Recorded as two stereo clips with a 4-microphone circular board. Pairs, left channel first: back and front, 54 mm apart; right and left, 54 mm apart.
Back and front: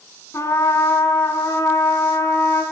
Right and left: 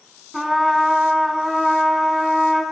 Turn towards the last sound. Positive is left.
turn(degrees=175)